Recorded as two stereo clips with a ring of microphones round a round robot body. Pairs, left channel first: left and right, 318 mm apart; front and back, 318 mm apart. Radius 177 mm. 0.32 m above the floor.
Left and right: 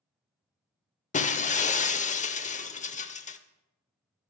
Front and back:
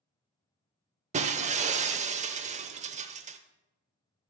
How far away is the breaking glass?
About 0.7 m.